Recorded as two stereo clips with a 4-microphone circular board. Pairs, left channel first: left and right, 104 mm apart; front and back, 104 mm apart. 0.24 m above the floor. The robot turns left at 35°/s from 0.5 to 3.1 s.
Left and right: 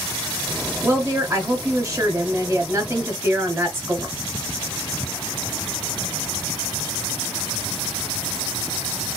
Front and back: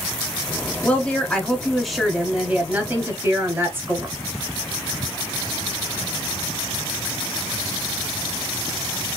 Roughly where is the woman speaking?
Ahead right.